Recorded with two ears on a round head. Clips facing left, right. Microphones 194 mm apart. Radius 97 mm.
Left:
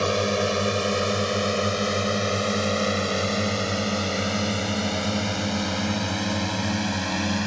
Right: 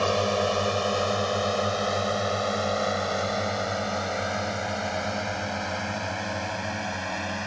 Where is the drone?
25° left (ahead or behind); by 7.5 s 55° left (ahead or behind).